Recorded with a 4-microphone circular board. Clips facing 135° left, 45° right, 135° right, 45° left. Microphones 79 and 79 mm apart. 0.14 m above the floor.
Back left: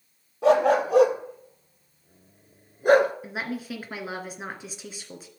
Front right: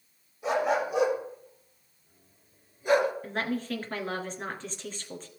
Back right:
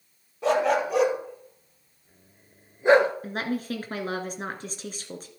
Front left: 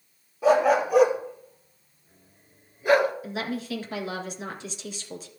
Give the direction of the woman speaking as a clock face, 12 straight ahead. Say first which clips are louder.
Front right 1 dB, back right 2 dB; 5 o'clock.